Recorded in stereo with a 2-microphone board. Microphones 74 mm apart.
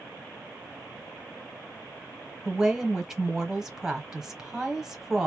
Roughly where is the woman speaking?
Centre.